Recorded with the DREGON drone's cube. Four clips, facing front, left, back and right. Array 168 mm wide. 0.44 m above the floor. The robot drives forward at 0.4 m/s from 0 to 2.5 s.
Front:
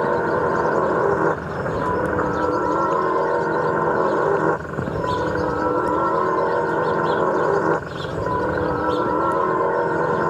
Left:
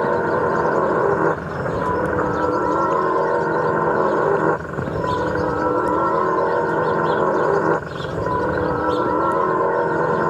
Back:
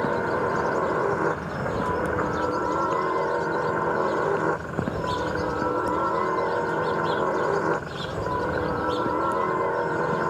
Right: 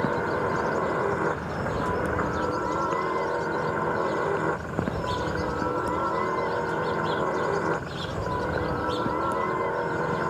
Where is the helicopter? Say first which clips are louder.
Left 8 dB, front 5 dB; 55° left; by 10.3 s 60° left.